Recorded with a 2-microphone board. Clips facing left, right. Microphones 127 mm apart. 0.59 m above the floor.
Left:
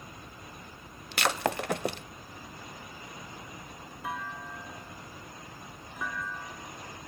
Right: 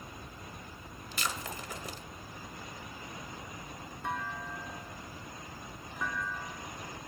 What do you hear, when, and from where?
1.1 s breaking glass: 70° left (ahead or behind), 0.8 m
4.0 s a clunk: 5° left (ahead or behind), 2 m